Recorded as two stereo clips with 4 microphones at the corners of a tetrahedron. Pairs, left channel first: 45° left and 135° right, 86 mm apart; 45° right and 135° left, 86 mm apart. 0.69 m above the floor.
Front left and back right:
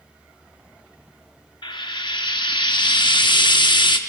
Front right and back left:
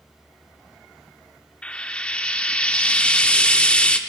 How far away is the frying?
About 0.8 m.